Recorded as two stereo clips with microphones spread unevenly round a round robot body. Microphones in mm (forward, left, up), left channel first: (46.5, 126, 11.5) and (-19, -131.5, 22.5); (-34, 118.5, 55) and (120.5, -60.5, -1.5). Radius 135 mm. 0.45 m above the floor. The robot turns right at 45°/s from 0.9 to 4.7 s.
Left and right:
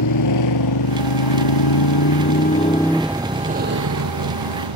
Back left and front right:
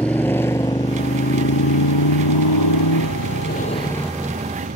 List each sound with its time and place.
0.0 s a motorcycle: 45° left; by 4.8 s 110° right